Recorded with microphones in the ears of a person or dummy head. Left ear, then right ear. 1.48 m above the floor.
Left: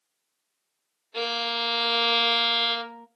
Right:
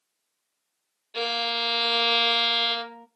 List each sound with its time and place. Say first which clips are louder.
1.1 s a violin: right 1 dB; 5° right (ahead or behind), 0.6 m